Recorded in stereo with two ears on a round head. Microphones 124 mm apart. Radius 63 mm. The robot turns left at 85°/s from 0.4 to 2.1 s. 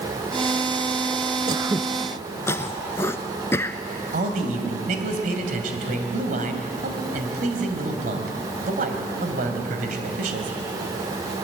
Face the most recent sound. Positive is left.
turn(degrees=-60)  # may be behind; listen again after turning